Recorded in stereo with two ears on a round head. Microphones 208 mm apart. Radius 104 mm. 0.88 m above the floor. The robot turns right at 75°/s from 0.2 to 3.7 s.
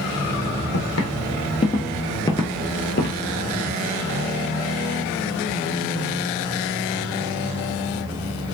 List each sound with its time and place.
0.7 s footsteps: 55° left (ahead or behind), 1.6 m; by 3.2 s 50° left (ahead or behind), 1.3 m